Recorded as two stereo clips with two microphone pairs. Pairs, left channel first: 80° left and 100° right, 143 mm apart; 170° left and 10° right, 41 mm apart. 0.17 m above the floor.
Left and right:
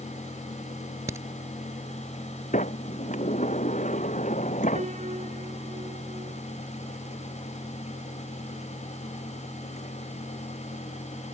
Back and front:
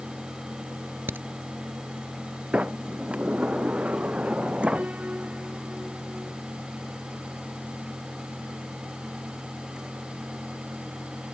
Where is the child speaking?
I don't hear a child speaking.